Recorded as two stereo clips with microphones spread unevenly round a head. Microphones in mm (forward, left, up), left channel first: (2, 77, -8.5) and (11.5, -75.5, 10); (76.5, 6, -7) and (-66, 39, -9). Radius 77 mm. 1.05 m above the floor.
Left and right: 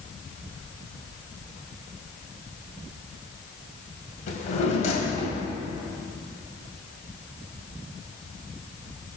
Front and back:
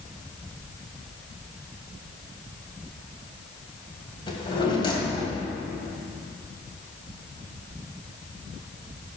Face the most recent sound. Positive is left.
turn(degrees=45)